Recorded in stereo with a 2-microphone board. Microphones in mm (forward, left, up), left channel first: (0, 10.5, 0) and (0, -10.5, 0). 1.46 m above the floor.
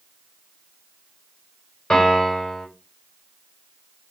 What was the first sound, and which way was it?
A piano, 55° left (ahead or behind).